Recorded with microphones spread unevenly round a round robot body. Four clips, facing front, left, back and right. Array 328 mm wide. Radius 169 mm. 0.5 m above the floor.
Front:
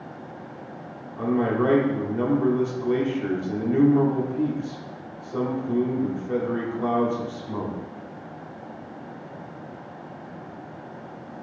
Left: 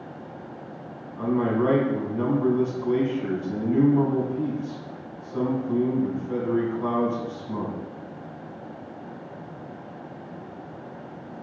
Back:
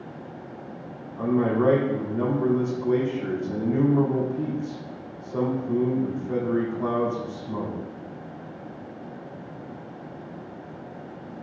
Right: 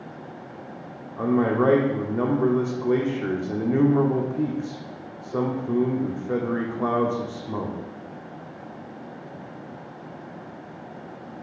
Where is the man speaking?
65° right, 1.7 m.